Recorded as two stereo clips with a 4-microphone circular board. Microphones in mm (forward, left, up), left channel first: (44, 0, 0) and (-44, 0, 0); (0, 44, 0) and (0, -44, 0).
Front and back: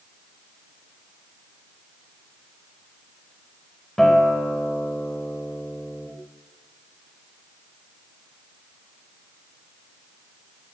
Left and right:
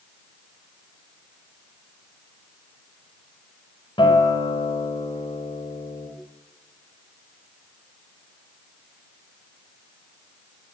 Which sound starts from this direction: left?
A guitar, at 4.0 s.